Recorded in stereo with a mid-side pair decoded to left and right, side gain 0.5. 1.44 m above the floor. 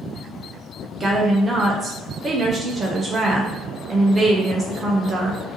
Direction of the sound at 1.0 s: 35° right.